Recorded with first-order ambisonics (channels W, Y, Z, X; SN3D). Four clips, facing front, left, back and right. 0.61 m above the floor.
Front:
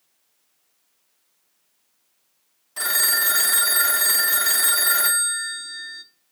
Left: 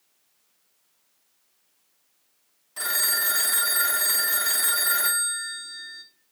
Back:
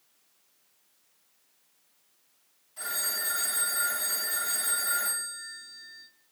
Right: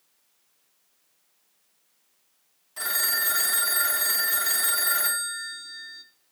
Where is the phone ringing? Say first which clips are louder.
Left 1 dB, front 11 dB; 10° left, 0.6 m.